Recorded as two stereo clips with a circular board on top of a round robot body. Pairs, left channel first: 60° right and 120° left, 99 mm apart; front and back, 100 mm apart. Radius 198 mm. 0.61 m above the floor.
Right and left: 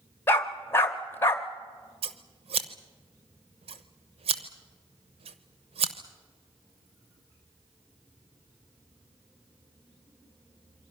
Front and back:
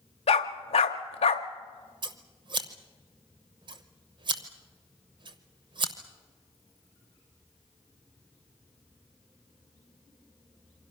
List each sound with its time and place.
0.3 s a dog barking: 10° left, 0.6 m
2.0 s scissors: 140° left, 0.8 m